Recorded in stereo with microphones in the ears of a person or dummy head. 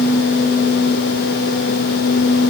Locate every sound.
Only background noise.